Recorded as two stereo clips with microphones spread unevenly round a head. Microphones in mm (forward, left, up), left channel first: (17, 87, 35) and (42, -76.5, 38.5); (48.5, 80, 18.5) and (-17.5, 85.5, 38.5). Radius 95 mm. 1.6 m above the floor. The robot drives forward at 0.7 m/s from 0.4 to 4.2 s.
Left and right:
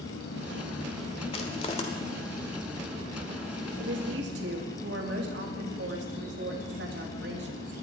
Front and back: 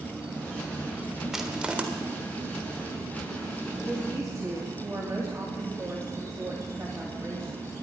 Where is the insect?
105° left, 3.5 m; by 7.8 s 140° left, 5 m.